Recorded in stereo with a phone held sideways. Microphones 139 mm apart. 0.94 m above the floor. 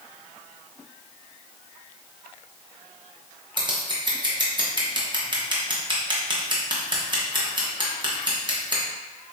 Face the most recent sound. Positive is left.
turn(degrees=-35)  # may be behind; listen again after turning